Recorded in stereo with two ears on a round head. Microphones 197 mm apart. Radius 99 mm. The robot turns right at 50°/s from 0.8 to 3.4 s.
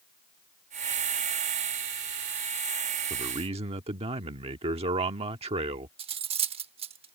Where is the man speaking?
20° right (ahead or behind); by 5.9 s 30° right (ahead or behind).